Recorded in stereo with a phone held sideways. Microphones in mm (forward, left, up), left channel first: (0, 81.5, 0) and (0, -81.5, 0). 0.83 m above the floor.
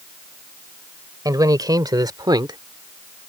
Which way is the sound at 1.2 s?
25° right (ahead or behind).